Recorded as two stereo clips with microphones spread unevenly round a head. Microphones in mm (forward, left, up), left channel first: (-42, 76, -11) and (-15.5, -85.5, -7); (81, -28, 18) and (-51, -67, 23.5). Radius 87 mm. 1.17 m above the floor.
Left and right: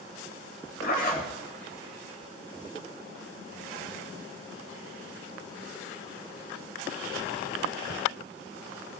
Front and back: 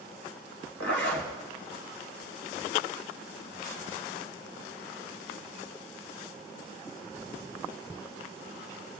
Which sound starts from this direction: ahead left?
A zipper, at 0.8 s.